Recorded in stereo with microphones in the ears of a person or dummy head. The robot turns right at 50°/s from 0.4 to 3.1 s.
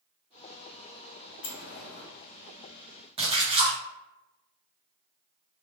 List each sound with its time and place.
1.4 s a sliding door: 70° left (ahead or behind), 0.8 m; by 2.1 s 40° left (ahead or behind), 0.8 m
3.2 s a splash: 30° right (ahead or behind), 1.3 m